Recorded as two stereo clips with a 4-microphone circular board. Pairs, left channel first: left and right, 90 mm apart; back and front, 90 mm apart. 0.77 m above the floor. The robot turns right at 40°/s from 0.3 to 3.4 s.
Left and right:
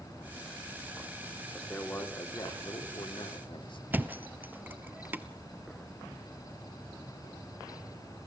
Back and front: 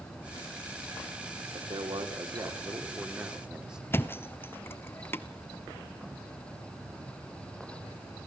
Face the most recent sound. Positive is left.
turn(degrees=-140)